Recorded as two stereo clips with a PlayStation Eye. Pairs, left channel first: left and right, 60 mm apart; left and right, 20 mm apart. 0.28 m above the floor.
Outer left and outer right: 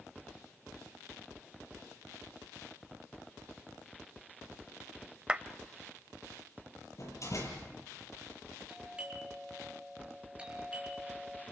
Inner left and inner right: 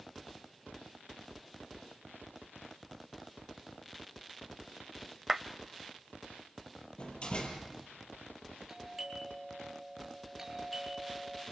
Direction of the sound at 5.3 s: 20° right (ahead or behind).